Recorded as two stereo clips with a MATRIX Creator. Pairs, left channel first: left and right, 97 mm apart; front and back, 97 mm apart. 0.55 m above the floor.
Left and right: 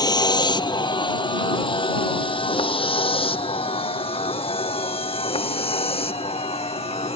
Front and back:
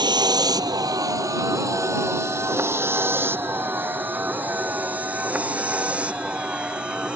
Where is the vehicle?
135° left; by 7.2 s 100° left.